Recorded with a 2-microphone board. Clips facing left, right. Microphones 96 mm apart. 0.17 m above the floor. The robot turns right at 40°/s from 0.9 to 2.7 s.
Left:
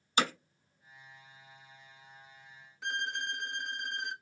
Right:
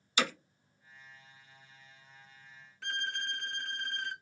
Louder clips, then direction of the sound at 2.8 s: Left 2 dB; 20° left (ahead or behind).